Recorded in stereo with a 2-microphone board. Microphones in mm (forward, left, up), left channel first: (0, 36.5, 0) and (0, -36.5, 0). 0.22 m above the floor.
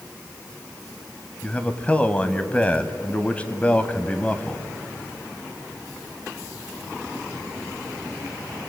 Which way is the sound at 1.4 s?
20° left (ahead or behind).